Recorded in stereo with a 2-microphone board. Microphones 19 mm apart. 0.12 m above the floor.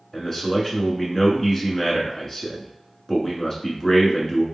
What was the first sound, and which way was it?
A man speaking, 20° left (ahead or behind).